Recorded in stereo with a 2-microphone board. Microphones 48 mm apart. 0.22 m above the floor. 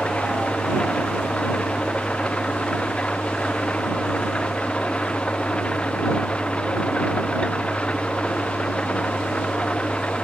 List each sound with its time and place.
0.0 s an engine running: 25° left (ahead or behind)